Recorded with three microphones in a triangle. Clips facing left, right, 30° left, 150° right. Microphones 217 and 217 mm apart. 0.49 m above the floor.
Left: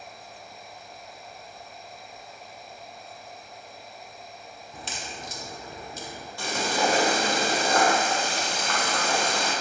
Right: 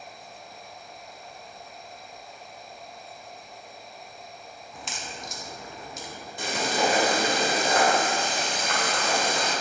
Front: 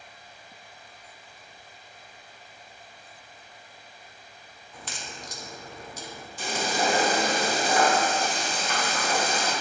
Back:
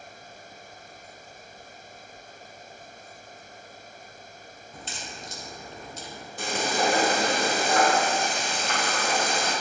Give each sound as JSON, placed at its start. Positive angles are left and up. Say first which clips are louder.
{"t": 4.7, "sound": "a crack", "louder": "left 1 dB, even", "azimuth_deg": 150, "distance_m": 1.0}
{"t": 6.4, "sound": "frying", "louder": "right 1 dB, back 1 dB", "azimuth_deg": -160, "distance_m": 2.0}